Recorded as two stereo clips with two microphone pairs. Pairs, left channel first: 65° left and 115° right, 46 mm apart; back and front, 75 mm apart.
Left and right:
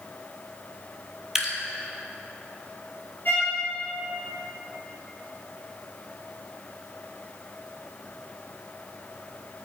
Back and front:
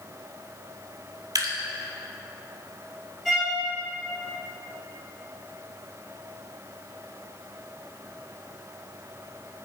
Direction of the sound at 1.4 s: 30° right.